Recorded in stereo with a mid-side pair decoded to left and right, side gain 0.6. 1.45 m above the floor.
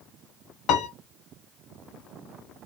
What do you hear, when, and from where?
0.7 s a piano: 65° left, 1.0 m